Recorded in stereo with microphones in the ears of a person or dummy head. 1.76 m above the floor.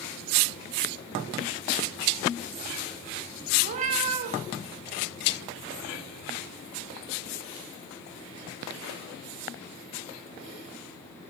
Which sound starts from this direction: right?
A cat meowing, at 3.6 s.